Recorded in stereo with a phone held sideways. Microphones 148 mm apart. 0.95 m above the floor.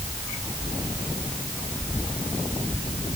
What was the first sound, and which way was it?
Only background noise.